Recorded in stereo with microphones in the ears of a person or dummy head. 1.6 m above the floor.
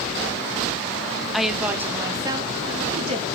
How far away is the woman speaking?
About 1.0 m.